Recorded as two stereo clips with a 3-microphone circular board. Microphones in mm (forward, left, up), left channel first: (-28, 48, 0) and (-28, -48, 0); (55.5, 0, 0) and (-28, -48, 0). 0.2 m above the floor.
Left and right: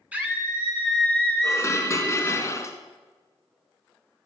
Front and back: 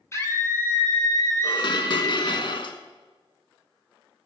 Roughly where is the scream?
Ahead.